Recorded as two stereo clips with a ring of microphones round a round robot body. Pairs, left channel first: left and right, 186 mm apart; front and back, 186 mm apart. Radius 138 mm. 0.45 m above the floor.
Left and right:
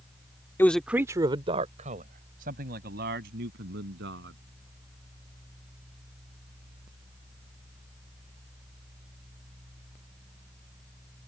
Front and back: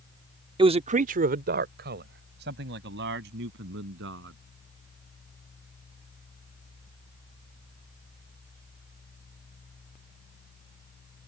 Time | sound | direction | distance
0.6 | a man speaking | 155° left | ?